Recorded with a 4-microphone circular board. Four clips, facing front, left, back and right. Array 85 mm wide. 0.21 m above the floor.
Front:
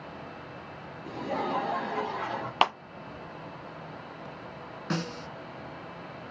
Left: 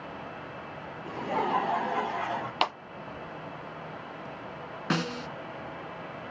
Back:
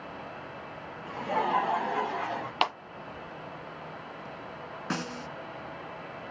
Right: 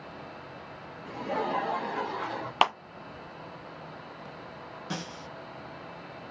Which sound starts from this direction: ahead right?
A clap, at 2.6 s.